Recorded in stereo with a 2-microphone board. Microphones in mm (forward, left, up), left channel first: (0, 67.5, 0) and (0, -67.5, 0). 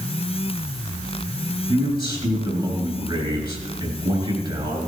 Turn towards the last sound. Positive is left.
turn(degrees=-35)  # may be behind; listen again after turning